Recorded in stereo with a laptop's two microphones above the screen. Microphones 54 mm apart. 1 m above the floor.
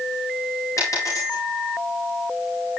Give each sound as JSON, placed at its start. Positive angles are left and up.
{"t": 0.8, "sound": "a dropped coin", "side_deg": 65, "distance_m": 9.5}